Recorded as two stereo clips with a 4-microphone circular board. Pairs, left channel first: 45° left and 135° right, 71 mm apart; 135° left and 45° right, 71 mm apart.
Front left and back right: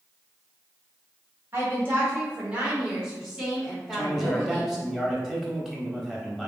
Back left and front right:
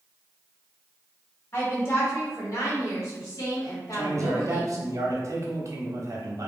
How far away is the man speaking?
About 0.9 m.